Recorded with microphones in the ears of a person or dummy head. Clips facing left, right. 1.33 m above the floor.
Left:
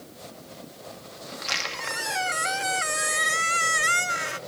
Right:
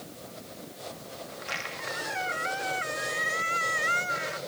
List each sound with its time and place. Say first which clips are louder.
1.3 s a squeak: left 2 dB; 55° left (ahead or behind)